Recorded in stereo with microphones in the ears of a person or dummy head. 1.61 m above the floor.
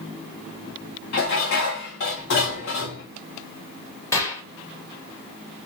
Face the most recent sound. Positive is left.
turn(degrees=15)  # may be behind; listen again after turning